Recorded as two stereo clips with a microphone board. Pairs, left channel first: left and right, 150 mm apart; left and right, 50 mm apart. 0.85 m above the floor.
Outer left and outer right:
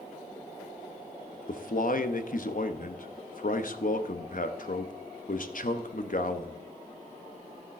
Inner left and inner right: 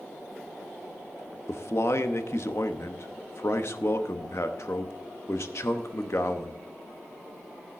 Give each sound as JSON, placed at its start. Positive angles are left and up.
{"t": 1.5, "sound": "a man speaking", "side_deg": 65, "distance_m": 0.8}